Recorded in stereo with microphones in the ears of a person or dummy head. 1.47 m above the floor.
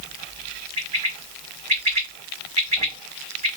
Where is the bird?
35° right (ahead or behind), 1.4 m.